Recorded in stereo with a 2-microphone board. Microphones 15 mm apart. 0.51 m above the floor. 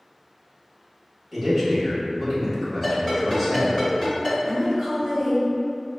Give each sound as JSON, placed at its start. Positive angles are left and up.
{"t": 1.3, "sound": "a man speaking", "side_deg": 0, "distance_m": 1.3}
{"t": 2.8, "sound": "a ringtone", "side_deg": 25, "distance_m": 1.8}
{"t": 4.4, "sound": "a woman speaking", "side_deg": -15, "distance_m": 1.1}